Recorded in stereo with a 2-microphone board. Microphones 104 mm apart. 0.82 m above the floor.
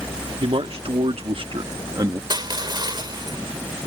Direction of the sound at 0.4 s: 65° right (ahead or behind).